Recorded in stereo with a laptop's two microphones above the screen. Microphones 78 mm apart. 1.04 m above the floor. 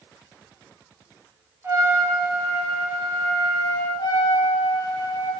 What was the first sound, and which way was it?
A trumpet, 35° right (ahead or behind).